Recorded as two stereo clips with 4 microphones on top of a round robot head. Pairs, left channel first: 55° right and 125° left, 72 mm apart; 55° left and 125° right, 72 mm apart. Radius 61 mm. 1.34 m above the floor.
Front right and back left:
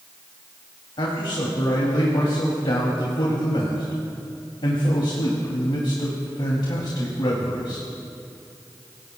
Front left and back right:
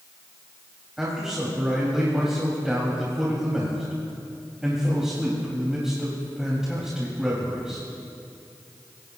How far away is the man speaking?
About 3 m.